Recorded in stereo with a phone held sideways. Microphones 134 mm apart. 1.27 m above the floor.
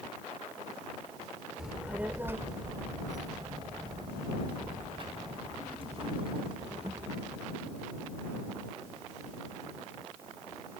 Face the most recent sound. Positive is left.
turn(degrees=-45)  # may be behind; listen again after turning